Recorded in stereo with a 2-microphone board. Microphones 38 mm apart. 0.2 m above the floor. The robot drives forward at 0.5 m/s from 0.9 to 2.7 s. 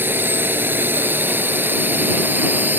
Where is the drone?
65° right (ahead or behind); by 2.8 s 55° right (ahead or behind).